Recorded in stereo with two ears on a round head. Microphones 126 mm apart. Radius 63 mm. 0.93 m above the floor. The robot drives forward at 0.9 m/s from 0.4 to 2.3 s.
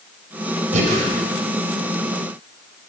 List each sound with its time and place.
0.7 s breathing: 50° right (ahead or behind), 5 m; by 1.1 s 55° right (ahead or behind), 5 m